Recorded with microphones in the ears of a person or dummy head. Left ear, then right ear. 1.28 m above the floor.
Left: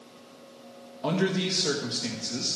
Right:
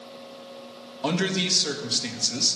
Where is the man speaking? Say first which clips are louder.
Right 2 dB; 20° right (ahead or behind), 1.8 m.